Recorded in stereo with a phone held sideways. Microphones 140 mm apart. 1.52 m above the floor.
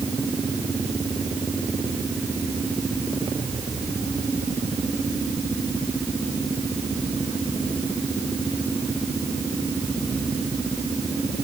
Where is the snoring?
I don't hear snoring.